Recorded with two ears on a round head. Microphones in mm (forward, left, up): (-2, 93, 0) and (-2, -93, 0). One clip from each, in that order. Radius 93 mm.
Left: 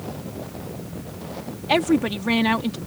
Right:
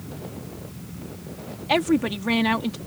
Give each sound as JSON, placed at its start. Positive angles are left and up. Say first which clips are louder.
{"t": 1.7, "sound": "a woman speaking", "louder": "left 1 dB", "side_deg": 0}